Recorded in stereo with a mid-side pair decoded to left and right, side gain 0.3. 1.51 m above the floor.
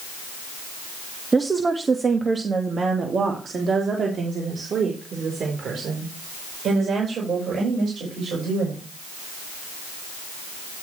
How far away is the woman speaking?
About 1.4 m.